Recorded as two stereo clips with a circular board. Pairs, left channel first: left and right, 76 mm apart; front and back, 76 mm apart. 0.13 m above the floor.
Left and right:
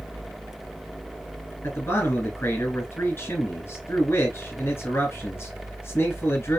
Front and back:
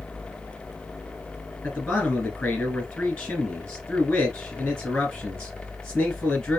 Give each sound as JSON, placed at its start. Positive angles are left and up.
{"t": 1.6, "sound": "a man speaking", "azimuth_deg": 70, "distance_m": 1.8}